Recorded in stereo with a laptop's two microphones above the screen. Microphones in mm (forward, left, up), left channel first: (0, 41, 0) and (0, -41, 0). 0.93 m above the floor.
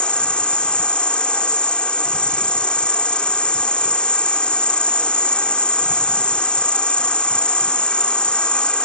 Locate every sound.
0.0 s an insect: 15° left (ahead or behind)